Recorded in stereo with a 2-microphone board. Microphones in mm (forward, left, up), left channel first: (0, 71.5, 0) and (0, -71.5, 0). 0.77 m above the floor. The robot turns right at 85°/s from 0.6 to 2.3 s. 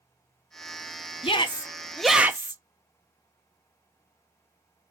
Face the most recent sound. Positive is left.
turn(degrees=-160)